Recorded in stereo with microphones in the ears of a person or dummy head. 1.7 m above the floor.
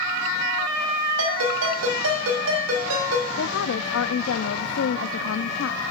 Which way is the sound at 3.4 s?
75° left (ahead or behind).